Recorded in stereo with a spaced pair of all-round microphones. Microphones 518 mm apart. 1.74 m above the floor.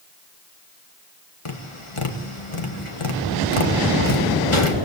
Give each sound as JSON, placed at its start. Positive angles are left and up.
{"t": 1.4, "sound": "tapping", "side_deg": 65, "distance_m": 2.0}